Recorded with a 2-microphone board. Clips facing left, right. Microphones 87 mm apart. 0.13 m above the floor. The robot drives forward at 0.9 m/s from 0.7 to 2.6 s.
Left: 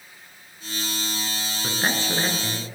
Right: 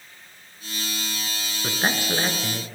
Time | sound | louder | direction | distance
1.6 | a man speaking | right 1 dB | 10° right (ahead or behind) | 1.1 m